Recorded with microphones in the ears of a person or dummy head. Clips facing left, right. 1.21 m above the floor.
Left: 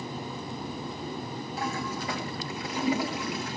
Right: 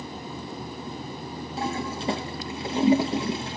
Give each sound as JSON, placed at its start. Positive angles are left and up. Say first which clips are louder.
{"t": 1.6, "sound": "a toilet flushing", "louder": "right 4 dB", "side_deg": -25, "distance_m": 1.4}